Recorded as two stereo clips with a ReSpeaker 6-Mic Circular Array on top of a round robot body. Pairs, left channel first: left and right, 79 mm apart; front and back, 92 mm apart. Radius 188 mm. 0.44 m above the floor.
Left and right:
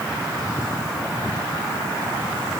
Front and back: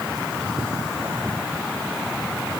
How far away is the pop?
No pop in this recording.